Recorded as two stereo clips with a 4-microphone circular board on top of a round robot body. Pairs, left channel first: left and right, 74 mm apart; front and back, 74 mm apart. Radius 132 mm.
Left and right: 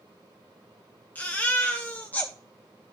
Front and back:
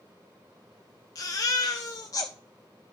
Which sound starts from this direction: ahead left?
A baby crying, at 1.1 s.